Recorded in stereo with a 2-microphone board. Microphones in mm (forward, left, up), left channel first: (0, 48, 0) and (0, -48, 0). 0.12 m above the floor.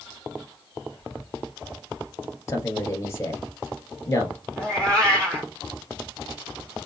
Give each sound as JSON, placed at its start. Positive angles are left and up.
{"t": 0.9, "sound": "whispering", "side_deg": 20, "distance_m": 3.5}
{"t": 2.5, "sound": "a man speaking", "side_deg": 30, "distance_m": 2.0}
{"t": 4.6, "sound": "a cat meowing", "side_deg": 10, "distance_m": 1.8}